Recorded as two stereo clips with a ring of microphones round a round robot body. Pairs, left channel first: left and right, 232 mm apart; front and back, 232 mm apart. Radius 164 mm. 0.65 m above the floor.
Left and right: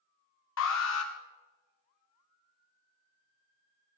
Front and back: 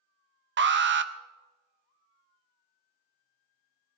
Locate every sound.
0.6 s an alarm: 140° left, 0.7 m